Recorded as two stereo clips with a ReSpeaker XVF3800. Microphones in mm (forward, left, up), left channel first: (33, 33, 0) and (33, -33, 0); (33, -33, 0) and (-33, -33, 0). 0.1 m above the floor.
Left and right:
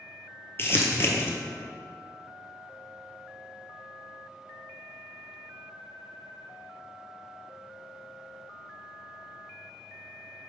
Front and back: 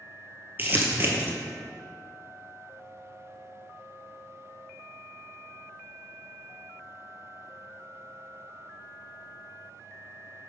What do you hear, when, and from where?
0.6 s crumpling: 130° left, 1.0 m